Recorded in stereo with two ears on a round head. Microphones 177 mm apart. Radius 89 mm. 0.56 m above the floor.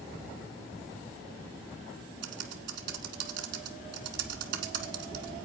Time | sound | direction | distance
2.2 | typing on a keyboard | 65° right (ahead or behind) | 1.3 m